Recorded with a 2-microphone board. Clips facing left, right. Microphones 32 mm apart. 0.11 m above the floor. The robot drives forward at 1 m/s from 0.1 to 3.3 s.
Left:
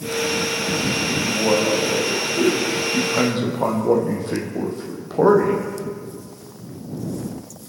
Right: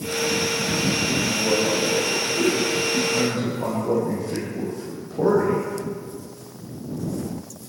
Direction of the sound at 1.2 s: 45° left (ahead or behind).